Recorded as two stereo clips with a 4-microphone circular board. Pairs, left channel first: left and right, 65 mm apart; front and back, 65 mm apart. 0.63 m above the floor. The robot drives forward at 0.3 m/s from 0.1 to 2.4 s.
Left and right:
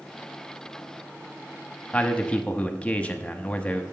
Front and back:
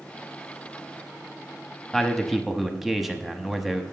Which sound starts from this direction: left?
A man speaking, at 1.9 s.